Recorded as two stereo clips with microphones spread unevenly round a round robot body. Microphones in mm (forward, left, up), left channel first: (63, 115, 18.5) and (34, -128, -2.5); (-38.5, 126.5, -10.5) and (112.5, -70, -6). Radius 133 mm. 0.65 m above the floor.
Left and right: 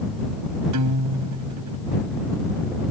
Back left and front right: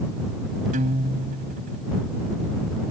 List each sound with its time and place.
0.7 s a guitar: 115° right